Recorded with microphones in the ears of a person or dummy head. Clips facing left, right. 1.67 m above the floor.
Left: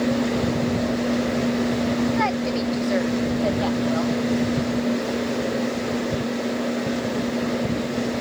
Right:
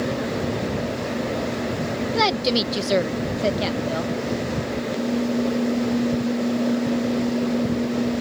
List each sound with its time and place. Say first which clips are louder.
2.1 s a woman speaking: right 1 dB; 55° right (ahead or behind); by 4.1 s 30° right (ahead or behind)